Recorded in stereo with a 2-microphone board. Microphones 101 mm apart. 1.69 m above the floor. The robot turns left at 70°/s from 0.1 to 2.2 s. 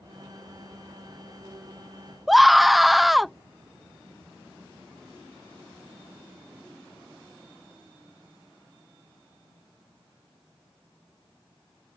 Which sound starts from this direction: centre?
A scream, at 2.3 s.